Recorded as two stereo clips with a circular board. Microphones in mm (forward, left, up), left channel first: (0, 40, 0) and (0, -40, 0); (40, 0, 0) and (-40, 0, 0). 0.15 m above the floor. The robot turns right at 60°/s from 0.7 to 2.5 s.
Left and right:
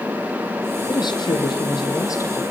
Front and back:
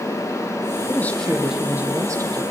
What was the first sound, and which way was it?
A woman speaking, 55° left.